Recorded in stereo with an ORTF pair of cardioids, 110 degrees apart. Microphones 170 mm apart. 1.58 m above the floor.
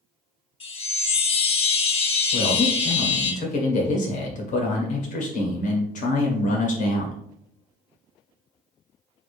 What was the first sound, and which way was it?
A chime, 30° left.